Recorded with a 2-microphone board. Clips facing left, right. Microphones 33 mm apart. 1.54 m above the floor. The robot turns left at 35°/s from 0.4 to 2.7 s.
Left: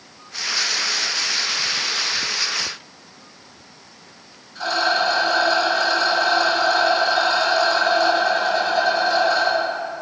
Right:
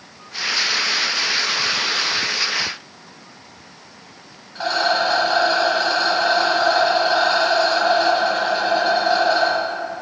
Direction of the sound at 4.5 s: 35° right (ahead or behind).